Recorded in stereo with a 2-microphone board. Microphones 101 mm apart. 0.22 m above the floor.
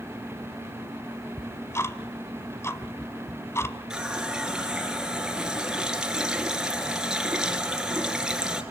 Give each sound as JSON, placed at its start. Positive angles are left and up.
{"t": 1.4, "sound": "ticking", "side_deg": 30, "distance_m": 1.1}
{"t": 3.9, "sound": "a running tap", "side_deg": -5, "distance_m": 2.5}